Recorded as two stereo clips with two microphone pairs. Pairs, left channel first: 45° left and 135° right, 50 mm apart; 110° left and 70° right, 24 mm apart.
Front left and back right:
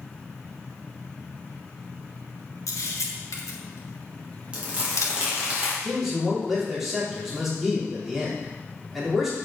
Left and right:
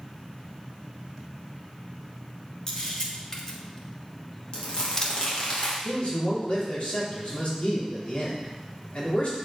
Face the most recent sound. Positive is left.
turn(degrees=140)